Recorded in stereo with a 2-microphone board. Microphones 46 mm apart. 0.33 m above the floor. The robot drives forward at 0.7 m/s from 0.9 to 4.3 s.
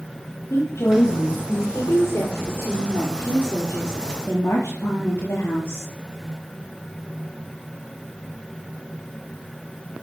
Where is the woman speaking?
70° left (ahead or behind), 6 m; by 5.9 s 80° left, 5.5 m.